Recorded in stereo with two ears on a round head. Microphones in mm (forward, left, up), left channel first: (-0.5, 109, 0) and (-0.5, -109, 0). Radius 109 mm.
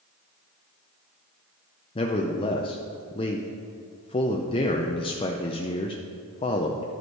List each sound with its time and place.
1.9 s a man speaking: 20° left (ahead or behind), 0.5 m